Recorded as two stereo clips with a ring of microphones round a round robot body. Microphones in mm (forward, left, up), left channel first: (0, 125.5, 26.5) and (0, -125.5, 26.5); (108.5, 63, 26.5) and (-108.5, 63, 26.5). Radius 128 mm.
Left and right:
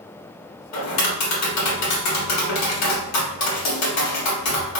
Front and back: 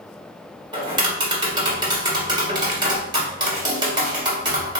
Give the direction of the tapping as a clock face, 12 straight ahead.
8 o'clock.